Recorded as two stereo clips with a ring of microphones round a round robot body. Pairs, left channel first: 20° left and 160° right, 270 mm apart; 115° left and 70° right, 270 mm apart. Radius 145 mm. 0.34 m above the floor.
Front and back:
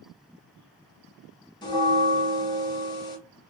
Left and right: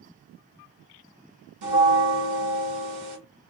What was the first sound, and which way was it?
A bell, 50° right.